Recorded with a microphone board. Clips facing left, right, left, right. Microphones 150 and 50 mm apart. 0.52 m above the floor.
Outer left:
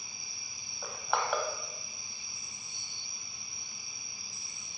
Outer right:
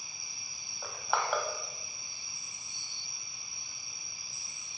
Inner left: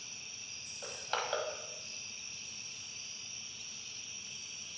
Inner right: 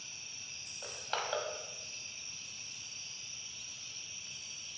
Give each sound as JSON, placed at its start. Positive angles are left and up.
{"t": 0.8, "sound": "crushing", "side_deg": 0, "distance_m": 1.3}